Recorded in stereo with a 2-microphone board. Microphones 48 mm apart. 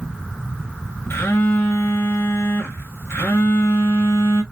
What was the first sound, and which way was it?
A phone buzzing, 60° left (ahead or behind).